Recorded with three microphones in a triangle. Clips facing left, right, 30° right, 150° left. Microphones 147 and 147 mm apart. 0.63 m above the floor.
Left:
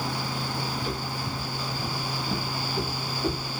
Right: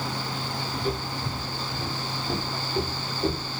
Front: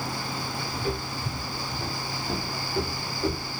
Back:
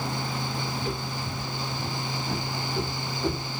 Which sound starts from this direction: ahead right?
Footsteps, at 0.7 s.